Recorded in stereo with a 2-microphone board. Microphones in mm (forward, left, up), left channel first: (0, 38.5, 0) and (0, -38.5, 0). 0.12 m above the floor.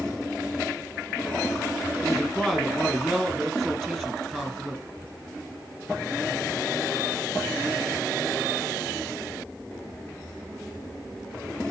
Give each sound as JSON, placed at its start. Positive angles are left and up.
{"t": 2.0, "sound": "a man speaking", "side_deg": 5, "distance_m": 4.0}